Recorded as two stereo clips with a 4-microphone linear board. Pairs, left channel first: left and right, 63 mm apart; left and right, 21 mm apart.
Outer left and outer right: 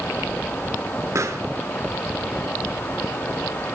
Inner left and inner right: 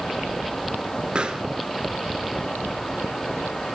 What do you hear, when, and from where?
1.1 s a pop: 50° right (ahead or behind), 0.7 m